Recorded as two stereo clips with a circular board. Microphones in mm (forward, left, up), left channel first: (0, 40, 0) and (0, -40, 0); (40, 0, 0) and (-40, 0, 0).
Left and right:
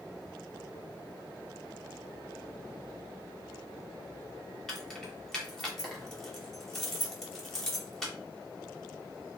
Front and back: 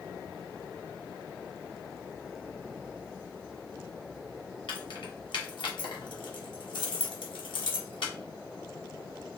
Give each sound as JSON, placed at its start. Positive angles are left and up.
{"t": 4.7, "sound": "keys jangling", "azimuth_deg": 5, "distance_m": 0.8}